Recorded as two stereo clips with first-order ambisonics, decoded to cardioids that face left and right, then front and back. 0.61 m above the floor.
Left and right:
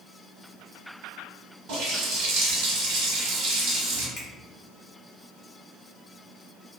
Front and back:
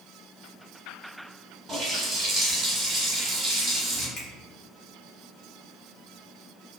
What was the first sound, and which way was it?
A running tap, 100° right.